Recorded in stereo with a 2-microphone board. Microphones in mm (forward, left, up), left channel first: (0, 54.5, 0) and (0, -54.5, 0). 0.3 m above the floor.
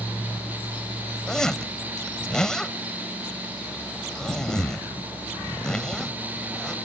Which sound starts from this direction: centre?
A zipper, at 1.3 s.